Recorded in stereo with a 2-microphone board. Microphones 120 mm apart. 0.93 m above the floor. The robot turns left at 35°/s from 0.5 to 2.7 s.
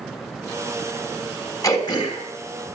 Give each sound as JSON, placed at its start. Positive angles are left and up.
{"t": 1.6, "sound": "throat clearing", "side_deg": 25, "distance_m": 2.5}